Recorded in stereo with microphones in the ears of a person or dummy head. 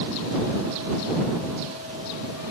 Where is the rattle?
I don't hear a rattle.